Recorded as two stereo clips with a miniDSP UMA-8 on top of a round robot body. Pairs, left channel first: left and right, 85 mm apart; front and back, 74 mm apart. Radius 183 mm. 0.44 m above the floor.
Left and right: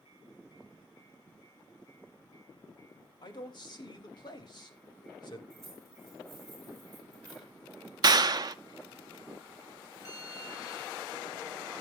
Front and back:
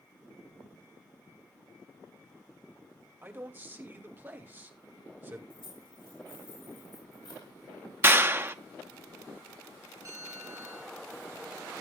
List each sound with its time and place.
3.2 s a man speaking: 120° left, 3 m
5.5 s keys jangling: straight ahead, 8.5 m
8.0 s a clap: 125° right, 0.9 m
10.1 s a bell: 135° left, 2.5 m